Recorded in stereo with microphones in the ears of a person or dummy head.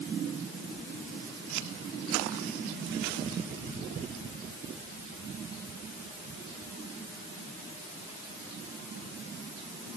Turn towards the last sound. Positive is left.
No sound to turn to.